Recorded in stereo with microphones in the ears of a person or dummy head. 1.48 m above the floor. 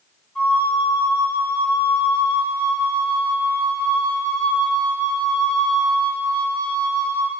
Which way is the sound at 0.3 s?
10° left (ahead or behind).